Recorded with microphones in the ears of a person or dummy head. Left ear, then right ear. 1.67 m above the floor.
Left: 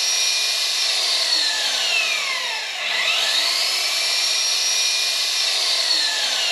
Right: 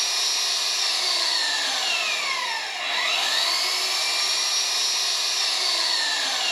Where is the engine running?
30° left (ahead or behind), 7 m.